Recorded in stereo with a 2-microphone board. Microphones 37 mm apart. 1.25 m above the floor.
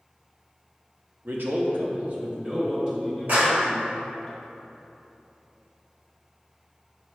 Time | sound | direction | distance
1.2 | a man speaking | 70° right (ahead or behind) | 0.7 m
3.3 | a clap | 55° right (ahead or behind) | 1.5 m